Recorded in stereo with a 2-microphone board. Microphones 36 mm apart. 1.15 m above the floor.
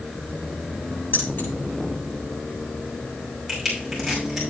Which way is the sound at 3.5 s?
5° right (ahead or behind).